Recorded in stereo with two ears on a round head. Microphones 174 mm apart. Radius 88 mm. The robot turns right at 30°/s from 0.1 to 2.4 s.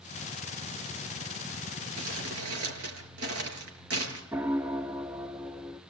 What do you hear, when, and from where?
2.0 s crumpling: 80° right, 5.5 m; by 4.2 s 85° right, 5.5 m
4.3 s a piano: 10° right (ahead or behind), 0.5 m